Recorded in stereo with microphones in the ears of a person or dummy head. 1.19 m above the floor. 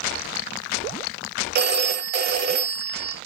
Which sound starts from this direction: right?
A phone ringing, at 1.6 s.